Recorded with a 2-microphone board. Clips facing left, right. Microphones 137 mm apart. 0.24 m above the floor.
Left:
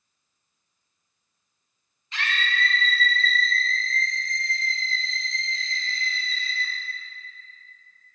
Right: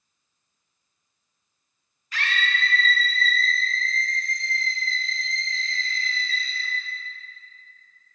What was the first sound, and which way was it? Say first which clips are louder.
A scream: right 1 dB; 25° left (ahead or behind).